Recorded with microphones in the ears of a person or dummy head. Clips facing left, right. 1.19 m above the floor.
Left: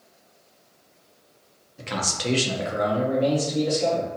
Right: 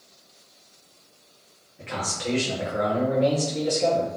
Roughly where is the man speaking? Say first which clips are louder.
Left 2 dB; left.